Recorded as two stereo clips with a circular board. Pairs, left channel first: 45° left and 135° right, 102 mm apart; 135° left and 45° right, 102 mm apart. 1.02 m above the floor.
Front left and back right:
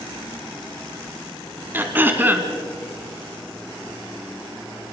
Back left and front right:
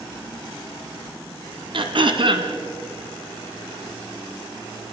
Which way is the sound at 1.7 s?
65° right.